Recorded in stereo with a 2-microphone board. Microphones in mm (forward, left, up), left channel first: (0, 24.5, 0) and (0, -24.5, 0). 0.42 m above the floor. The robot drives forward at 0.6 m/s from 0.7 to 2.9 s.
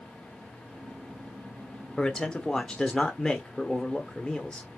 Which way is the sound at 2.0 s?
15° left (ahead or behind).